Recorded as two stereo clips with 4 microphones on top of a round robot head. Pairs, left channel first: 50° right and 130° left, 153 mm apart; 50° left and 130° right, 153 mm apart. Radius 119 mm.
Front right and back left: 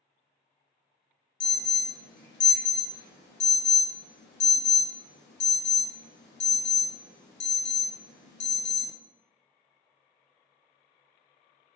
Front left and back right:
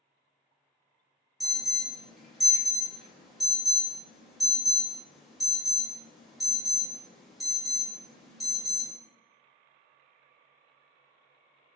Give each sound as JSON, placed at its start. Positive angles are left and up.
{"t": 1.4, "sound": "an alarm", "azimuth_deg": -40, "distance_m": 0.6}